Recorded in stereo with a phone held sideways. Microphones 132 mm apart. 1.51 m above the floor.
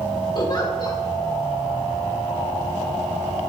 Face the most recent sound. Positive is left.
turn(degrees=35)  # may be behind; listen again after turning